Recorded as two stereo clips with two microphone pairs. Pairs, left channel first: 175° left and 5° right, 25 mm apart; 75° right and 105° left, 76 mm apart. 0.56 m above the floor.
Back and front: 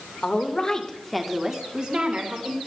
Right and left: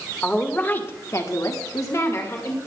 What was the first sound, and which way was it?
A woman speaking, 155° right.